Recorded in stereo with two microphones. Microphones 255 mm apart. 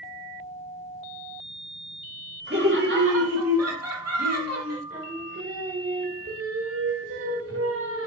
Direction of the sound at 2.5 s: 50° right (ahead or behind).